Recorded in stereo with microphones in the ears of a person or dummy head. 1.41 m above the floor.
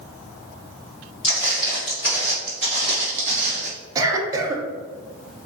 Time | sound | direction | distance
1.2 | footsteps | 45° left (ahead or behind) | 2.0 m
4.0 | a cough | 20° right (ahead or behind) | 0.6 m